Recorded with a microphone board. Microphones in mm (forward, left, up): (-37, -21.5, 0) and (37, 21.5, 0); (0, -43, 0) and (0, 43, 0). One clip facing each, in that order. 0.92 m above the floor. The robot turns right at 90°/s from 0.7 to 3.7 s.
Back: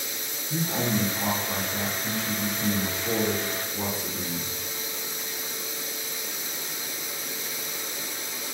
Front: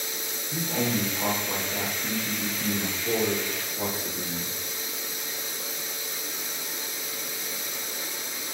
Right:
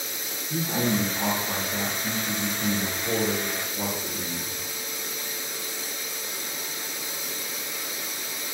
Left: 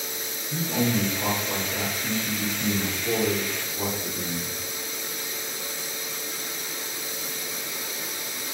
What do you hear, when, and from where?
0.5 s a man speaking: 90° right, 1.5 m; by 4.6 s straight behind, 1.5 m